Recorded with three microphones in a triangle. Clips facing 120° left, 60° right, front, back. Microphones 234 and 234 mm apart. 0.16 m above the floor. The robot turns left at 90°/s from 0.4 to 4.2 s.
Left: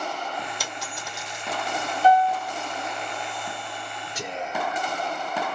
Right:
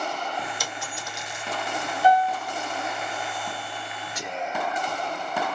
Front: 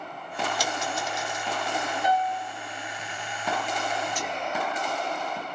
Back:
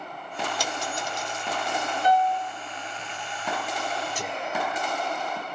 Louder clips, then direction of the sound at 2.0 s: Left 1 dB, back 5 dB; 10° left.